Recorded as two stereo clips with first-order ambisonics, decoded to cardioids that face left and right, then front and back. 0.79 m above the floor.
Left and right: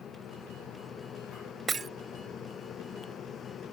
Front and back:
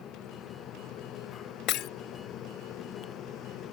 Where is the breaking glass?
20° right.